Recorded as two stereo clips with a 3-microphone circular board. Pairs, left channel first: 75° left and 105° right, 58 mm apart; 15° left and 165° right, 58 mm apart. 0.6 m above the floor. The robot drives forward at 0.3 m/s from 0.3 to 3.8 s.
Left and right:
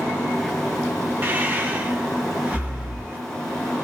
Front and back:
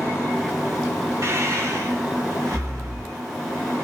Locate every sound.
1.2 s breathing: 150° right, 1.2 m; by 3.2 s 160° right, 1.6 m